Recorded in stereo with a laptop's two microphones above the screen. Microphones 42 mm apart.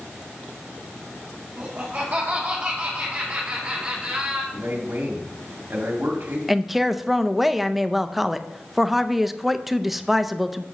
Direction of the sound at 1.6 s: 35° right (ahead or behind).